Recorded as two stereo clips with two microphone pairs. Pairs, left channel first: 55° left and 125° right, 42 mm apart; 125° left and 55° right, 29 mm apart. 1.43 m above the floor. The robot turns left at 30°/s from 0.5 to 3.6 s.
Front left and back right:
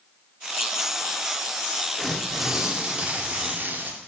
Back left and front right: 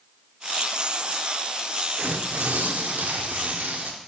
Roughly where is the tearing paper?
Ahead right.